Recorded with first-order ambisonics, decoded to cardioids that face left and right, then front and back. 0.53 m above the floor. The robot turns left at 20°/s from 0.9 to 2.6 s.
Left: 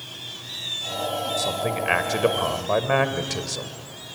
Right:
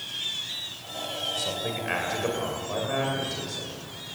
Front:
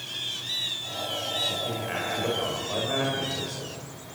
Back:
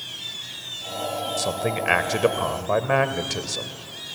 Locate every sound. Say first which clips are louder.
1.4 s a man speaking: left 5 dB, back 4 dB; 160° left, 2 m; by 3.7 s 135° left, 2 m